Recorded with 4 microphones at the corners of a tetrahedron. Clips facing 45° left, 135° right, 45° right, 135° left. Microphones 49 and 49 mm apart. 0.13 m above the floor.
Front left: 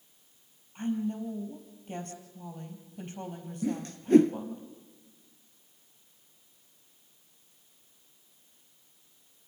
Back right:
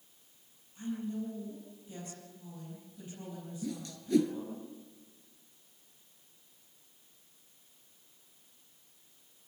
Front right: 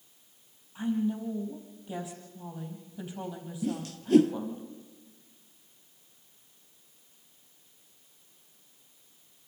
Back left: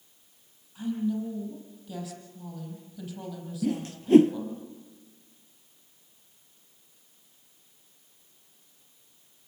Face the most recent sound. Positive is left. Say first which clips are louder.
# front left 9 dB, back left 4 dB
turn(degrees=85)